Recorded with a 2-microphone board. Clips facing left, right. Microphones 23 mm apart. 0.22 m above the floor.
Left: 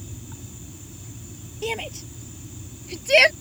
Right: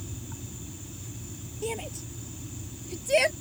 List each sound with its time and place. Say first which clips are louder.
1.6 s a shout: left 5 dB; 40° left (ahead or behind); by 3.3 s 45° left (ahead or behind)